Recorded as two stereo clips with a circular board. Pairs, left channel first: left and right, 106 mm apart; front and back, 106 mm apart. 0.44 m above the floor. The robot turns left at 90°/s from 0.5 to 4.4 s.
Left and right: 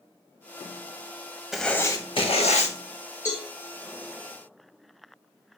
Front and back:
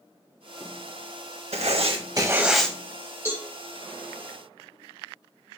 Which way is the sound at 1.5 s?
175° right.